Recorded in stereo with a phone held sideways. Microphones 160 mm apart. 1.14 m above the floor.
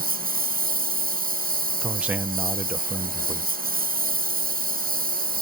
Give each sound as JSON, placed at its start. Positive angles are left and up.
{"t": 0.0, "sound": "a lawn mower", "side_deg": -65}
{"t": 1.8, "sound": "a man speaking", "side_deg": -10}